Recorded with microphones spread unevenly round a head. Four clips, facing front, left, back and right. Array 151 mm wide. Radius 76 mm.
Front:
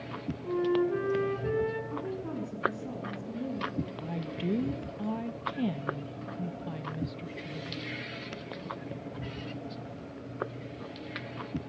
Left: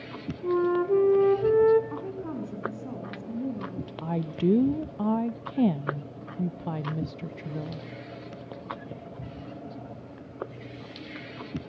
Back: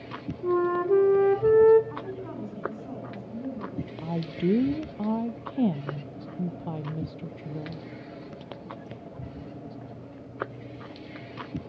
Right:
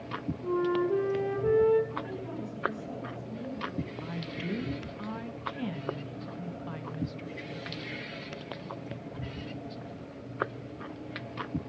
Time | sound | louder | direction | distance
0.4 | a flute | left 4 dB, back 4 dB | 155° left | 2.5 m
1.9 | a woman speaking | left 3 dB, front 1 dB | 70° left | 9 m
4.0 | a woman speaking | left 10 dB, back 6 dB | 120° left | 0.8 m